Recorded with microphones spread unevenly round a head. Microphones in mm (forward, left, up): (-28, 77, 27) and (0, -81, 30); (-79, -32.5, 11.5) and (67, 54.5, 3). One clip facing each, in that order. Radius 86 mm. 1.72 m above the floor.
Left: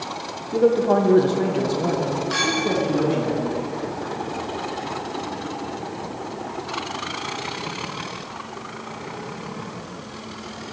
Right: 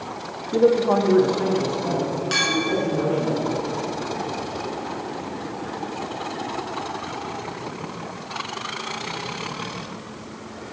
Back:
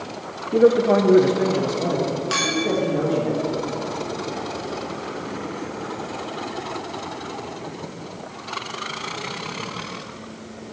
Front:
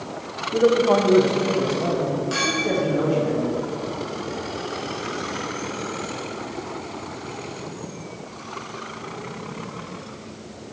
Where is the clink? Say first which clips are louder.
Left 1 dB, back 1 dB; 135° right, 1.9 m.